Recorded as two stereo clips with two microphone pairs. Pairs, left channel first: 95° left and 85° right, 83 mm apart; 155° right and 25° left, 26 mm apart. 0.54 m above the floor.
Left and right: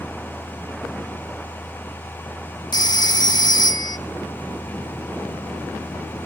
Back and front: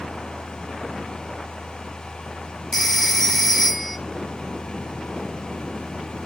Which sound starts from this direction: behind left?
A phone ringing, at 2.7 s.